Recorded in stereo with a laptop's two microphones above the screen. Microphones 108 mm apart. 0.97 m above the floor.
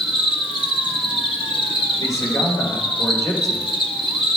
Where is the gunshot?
No gunshot in this recording.